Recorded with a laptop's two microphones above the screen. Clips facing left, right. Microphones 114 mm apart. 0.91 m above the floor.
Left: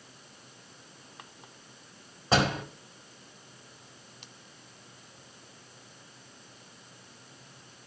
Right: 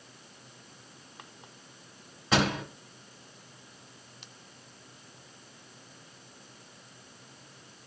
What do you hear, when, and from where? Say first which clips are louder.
2.3 s a door slam: left 1 dB; 35° left (ahead or behind), 3 m